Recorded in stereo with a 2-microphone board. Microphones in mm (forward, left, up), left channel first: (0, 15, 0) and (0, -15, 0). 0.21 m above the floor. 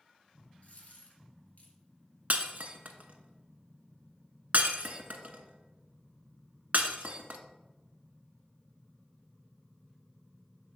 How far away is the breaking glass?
About 0.9 m.